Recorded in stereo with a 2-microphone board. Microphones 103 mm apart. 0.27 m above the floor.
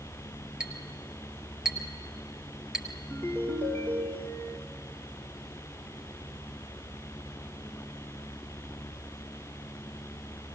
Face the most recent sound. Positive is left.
turn(degrees=15)  # may be behind; listen again after turning